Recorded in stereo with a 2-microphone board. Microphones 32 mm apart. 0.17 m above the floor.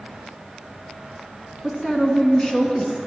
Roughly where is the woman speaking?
Centre.